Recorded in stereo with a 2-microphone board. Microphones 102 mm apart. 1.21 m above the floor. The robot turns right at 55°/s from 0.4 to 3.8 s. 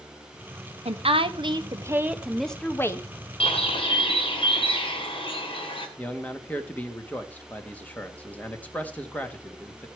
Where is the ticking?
I don't hear ticking.